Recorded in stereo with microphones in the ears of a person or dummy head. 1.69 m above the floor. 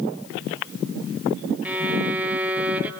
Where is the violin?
10° right (ahead or behind), 0.8 m.